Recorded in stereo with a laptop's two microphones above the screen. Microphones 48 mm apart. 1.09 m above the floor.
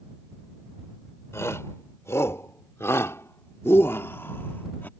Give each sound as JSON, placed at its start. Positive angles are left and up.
{"t": 1.3, "sound": "a shout", "side_deg": 90}